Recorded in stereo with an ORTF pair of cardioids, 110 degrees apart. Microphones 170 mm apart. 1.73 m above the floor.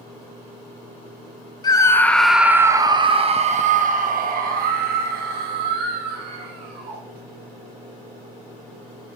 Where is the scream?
25° left, 1.0 m; by 7.0 s 75° right, 3 m.